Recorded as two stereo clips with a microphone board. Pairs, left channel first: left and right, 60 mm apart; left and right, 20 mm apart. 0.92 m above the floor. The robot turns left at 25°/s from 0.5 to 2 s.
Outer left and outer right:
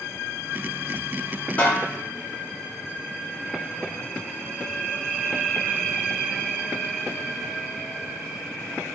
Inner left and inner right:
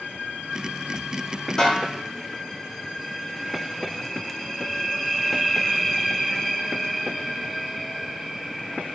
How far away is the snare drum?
About 0.8 m.